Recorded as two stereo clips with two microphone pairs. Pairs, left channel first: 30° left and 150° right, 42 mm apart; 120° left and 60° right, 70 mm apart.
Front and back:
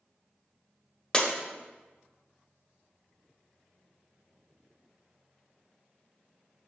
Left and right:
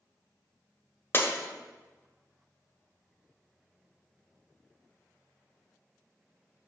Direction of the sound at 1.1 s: 90° left.